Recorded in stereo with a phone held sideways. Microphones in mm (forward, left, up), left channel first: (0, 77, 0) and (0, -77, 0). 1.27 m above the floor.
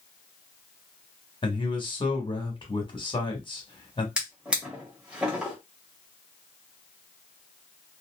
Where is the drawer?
5° right (ahead or behind), 1.2 m.